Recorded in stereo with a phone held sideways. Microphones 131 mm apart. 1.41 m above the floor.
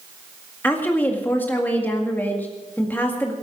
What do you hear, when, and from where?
0.6 s a woman speaking: 15° left (ahead or behind), 1.9 m